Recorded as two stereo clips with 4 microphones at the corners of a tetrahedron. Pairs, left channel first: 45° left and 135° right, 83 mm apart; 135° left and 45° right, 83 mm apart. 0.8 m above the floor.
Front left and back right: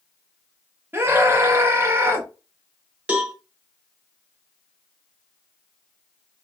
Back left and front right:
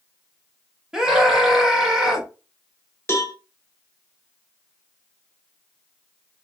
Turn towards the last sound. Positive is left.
turn(degrees=165)